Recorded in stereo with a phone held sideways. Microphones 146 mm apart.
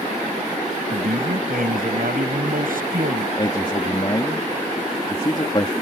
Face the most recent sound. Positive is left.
turn(degrees=35)  # may be behind; listen again after turning